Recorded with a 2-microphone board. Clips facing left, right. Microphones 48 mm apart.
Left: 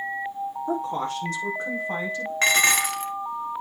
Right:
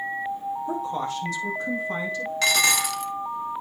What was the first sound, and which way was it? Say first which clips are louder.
A woman speaking: left 2 dB; 50° left (ahead or behind).